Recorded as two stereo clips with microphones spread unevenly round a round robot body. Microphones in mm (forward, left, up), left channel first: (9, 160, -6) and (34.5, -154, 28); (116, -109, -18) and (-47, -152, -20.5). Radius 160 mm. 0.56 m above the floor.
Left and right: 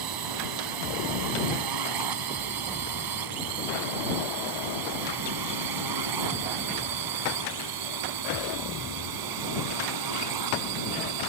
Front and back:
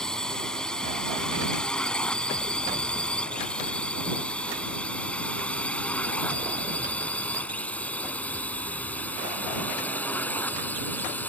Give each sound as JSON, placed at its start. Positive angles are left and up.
{"t": 0.0, "sound": "a drone", "azimuth_deg": -70}